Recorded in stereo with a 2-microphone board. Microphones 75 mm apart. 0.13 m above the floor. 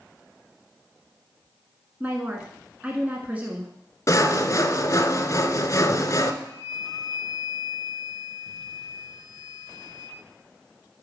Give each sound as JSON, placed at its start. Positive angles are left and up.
{"t": 2.0, "sound": "a woman speaking", "side_deg": -20, "distance_m": 1.1}
{"t": 4.1, "sound": "sawing", "side_deg": 45, "distance_m": 0.8}
{"t": 6.4, "sound": "a flute", "side_deg": -5, "distance_m": 3.5}